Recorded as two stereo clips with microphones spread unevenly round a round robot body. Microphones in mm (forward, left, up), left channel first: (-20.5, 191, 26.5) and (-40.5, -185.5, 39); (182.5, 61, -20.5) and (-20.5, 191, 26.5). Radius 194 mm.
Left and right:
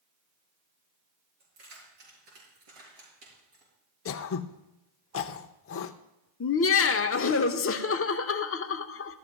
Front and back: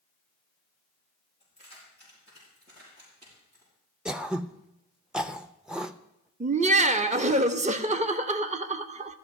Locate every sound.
1.4 s keys jangling: 105° right, 6.5 m; by 3.7 s 120° right, 6.5 m
4.0 s throat clearing: 50° left, 0.5 m
6.4 s laughter: 85° left, 0.9 m